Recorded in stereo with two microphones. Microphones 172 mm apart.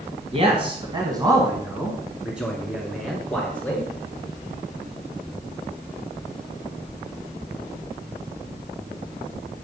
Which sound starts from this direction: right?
A man speaking, at 0.3 s.